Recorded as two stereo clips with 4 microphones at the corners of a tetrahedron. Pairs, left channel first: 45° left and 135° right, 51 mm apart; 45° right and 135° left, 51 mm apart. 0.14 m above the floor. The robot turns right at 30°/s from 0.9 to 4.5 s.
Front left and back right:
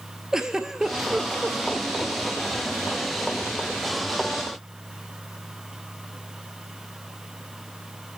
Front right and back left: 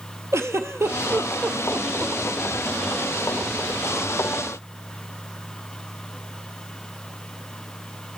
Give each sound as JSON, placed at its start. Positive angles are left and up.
{"t": 0.3, "sound": "a giggle", "azimuth_deg": 145, "distance_m": 0.5}